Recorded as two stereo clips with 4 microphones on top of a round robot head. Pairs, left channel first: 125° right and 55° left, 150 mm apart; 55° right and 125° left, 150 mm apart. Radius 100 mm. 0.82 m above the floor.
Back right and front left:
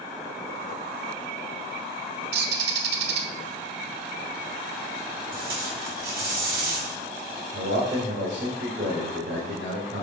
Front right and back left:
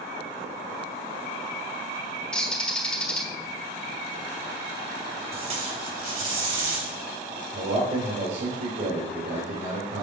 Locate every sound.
2.3 s a bird: 30° left, 1.1 m
5.3 s tape being pulled: 75° left, 4.5 m
7.5 s a man speaking: 85° left, 3 m